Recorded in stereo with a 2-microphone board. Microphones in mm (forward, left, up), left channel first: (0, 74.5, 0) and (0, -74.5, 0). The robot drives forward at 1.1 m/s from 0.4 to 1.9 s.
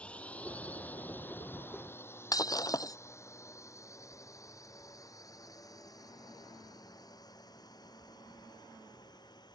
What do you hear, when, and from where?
0.0 s a drone: 10° left (ahead or behind); by 9.6 s 30° left (ahead or behind)
2.3 s breaking glass: 25° left (ahead or behind)